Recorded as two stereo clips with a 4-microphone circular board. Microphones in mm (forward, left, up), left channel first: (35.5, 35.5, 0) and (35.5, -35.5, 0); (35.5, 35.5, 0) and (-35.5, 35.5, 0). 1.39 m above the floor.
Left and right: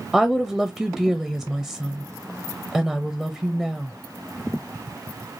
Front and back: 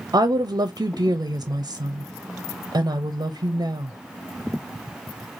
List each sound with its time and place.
0.1 s a woman speaking: 175° left, 0.5 m